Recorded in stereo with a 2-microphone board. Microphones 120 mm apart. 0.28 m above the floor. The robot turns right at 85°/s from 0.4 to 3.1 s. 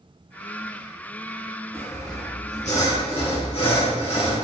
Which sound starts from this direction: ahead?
Sawing, at 1.7 s.